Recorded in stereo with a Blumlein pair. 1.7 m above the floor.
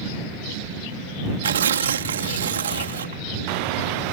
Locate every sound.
1.4 s tearing paper: 65° right